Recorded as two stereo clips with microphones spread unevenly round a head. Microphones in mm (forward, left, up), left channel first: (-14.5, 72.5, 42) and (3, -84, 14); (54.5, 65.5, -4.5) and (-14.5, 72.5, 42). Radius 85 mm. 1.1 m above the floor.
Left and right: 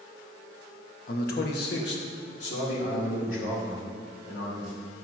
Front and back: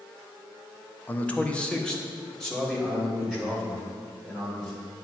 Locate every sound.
1.1 s a man speaking: 55° left, 1.0 m; by 4.7 s 80° left, 4.5 m